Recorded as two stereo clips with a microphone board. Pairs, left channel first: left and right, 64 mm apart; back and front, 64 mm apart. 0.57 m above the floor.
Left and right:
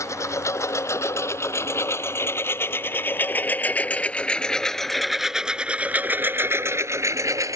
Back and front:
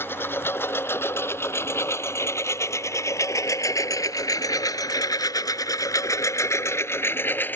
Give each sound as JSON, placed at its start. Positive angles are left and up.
{"t": 0.0, "sound": "a lawn mower", "azimuth_deg": 130}